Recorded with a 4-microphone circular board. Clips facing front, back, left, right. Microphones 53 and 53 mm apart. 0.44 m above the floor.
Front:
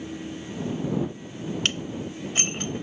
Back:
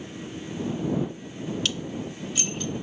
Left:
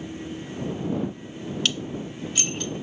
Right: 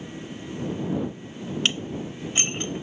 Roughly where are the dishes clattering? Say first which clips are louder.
Front 1 dB, right 2 dB; ahead right.